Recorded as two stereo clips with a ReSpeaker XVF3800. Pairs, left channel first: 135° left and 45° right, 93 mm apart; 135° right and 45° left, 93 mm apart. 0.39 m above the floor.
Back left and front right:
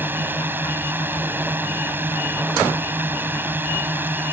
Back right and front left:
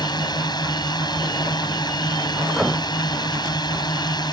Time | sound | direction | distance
0.0 | a drone | 110° right | ?